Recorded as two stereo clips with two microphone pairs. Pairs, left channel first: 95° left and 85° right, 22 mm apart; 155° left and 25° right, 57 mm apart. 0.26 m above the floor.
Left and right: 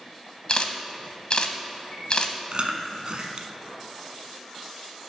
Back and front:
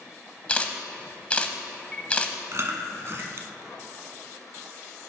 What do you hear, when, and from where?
0.5 s a camera shutter: 95° left, 0.8 m
2.5 s chewing: 55° right, 1.1 m